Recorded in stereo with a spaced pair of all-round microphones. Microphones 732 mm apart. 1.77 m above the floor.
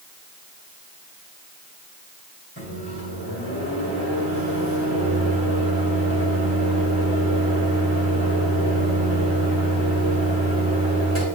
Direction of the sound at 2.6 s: 20° left (ahead or behind).